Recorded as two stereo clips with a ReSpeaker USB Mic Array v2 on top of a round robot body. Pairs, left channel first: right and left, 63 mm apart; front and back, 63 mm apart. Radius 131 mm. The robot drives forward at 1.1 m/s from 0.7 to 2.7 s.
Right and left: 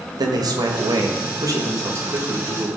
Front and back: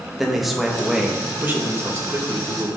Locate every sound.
0.2 s a man speaking: 90° left, 1.8 m; by 2.7 s 140° left, 3 m